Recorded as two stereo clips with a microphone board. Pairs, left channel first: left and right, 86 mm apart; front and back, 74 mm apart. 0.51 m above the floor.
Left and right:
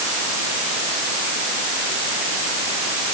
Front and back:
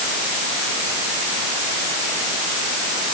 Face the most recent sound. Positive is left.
No sound to turn to.